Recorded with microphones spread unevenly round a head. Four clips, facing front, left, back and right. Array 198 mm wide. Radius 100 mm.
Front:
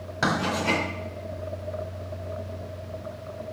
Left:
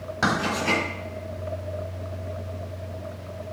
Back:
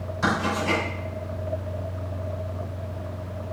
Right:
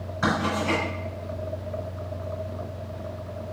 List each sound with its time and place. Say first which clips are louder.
0.2 s writing: even, back 1 dB; 50° left, 5 m